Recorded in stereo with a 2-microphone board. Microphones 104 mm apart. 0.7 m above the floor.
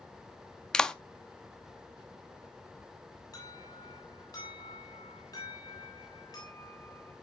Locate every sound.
0.7 s a clap: 5° left (ahead or behind), 0.6 m
3.3 s an alarm: 40° left (ahead or behind), 8 m